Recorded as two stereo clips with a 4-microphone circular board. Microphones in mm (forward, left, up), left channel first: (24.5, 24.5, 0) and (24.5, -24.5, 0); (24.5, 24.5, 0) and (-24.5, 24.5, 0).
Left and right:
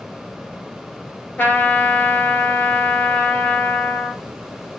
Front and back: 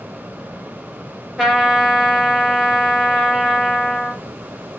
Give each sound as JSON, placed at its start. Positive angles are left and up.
{"t": 1.4, "sound": "a trumpet", "azimuth_deg": 100, "distance_m": 1.4}